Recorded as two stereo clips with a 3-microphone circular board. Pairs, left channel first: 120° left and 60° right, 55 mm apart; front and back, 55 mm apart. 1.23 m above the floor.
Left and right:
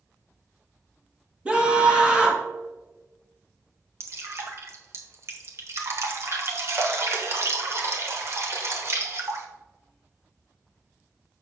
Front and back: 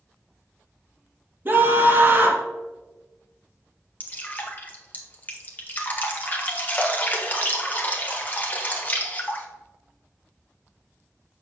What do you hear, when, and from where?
1.4 s a scream: 130° right, 2.0 m
4.0 s dripping: 50° right, 1.3 m